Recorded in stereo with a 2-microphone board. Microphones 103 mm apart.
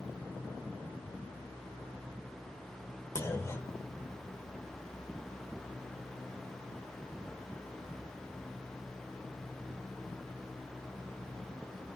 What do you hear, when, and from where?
3.1 s a clunk: 25° left (ahead or behind), 0.7 m